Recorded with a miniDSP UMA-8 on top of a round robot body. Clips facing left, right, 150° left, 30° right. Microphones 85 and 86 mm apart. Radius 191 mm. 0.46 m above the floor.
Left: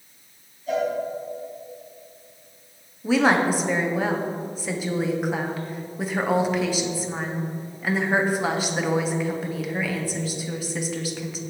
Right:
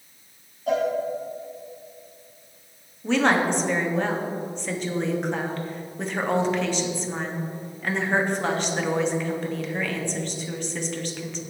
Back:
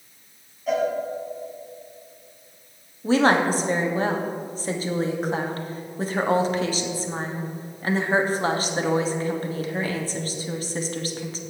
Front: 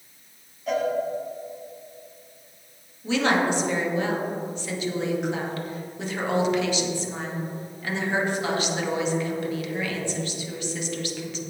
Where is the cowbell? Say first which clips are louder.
Right 1 dB, back 3 dB; 120° right, 2 m.